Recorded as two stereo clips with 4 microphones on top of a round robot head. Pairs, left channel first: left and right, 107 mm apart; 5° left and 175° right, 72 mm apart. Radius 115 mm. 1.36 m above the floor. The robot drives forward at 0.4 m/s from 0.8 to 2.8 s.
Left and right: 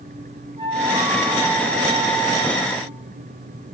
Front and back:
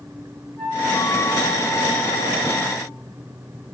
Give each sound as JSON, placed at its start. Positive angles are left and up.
{"t": 0.6, "sound": "a flute", "azimuth_deg": -65, "distance_m": 8.5}